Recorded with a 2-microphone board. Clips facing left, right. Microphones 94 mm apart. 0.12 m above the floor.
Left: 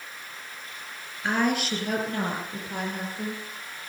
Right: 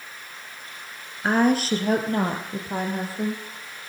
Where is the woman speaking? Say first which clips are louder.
Right 5 dB; 40° right (ahead or behind), 2.0 m.